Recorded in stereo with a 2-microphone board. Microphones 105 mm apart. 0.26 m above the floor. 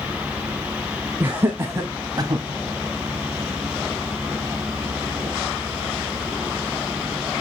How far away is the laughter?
About 2 m.